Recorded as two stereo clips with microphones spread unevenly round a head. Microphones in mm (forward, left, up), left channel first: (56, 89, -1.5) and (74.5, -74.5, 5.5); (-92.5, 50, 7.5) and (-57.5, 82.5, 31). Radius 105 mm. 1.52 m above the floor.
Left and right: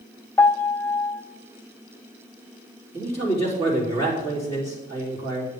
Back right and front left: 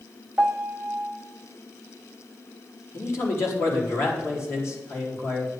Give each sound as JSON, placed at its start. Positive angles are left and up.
{"t": 0.4, "sound": "a piano", "azimuth_deg": 30, "distance_m": 0.9}
{"t": 2.9, "sound": "a man speaking", "azimuth_deg": -160, "distance_m": 3.5}